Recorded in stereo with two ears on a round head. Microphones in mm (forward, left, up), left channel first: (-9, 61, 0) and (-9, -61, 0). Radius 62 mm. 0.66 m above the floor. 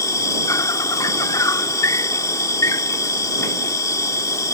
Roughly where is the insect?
Left.